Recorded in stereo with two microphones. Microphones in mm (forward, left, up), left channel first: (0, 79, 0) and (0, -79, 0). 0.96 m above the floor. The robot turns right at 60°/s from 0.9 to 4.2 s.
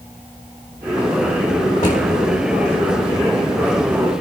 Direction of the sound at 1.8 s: 55° left (ahead or behind).